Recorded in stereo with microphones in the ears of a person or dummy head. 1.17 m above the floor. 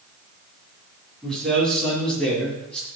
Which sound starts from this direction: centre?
A man speaking, at 1.2 s.